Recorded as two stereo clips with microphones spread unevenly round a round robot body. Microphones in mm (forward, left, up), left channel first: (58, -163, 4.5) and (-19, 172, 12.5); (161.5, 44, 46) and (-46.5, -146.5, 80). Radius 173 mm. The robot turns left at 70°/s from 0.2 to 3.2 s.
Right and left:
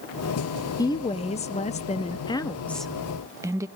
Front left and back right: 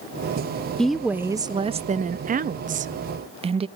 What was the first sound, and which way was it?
A woman speaking, 20° right.